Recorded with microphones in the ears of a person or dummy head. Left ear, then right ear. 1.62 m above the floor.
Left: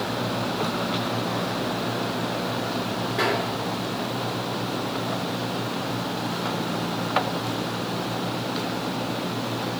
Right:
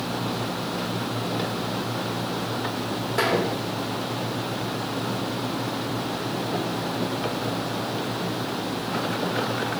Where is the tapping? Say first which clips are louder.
Right 1 dB; 80° right, 1.2 m.